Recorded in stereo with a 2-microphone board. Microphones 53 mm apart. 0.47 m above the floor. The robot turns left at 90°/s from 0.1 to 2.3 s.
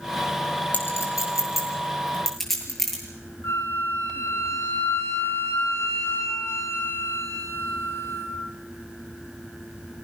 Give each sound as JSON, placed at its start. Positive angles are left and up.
{"t": 0.7, "sound": "a clink", "side_deg": 35, "distance_m": 7.5}
{"t": 3.4, "sound": "a flute", "side_deg": 60, "distance_m": 3.0}